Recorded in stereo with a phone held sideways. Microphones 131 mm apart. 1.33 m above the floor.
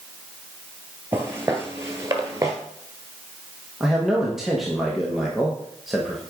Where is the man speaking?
5° right (ahead or behind), 1.2 m.